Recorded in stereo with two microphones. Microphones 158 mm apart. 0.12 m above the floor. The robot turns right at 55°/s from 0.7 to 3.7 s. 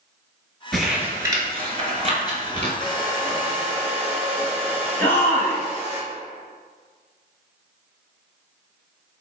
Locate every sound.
0.7 s crumpling: centre (ahead or behind), 1.0 m; by 2.7 s 40° right (ahead or behind), 1.0 m
2.8 s a hair dryer: 80° left, 1.3 m; by 6.0 s 130° left, 1.3 m
5.0 s a shout: 15° left (ahead or behind), 1.2 m